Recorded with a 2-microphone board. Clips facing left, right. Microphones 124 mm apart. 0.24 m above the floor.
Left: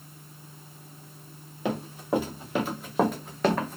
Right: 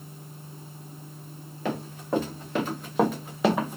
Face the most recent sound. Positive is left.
turn(degrees=-15)  # may be behind; listen again after turning